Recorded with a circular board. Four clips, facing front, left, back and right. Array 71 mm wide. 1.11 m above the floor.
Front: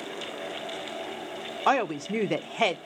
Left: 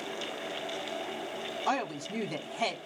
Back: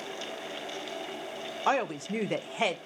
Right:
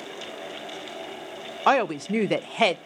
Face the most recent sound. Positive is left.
turn(degrees=-80)